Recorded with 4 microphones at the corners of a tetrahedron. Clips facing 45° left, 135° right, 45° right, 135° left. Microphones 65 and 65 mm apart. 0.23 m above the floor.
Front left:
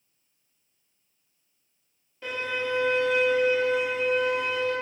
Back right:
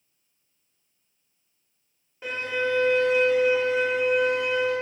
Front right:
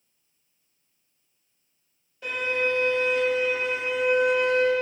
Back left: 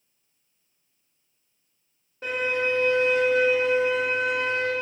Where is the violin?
160° left, 1.6 m.